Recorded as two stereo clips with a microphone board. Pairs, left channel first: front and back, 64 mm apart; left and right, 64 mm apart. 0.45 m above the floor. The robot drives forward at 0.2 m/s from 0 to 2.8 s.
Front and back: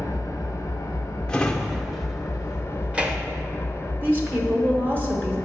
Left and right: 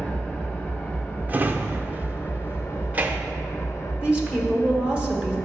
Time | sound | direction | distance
0.0 | an engine running | 25° left | 1.0 m
1.3 | a drawer | 60° right | 0.6 m
4.0 | a woman speaking | 150° right | 1.1 m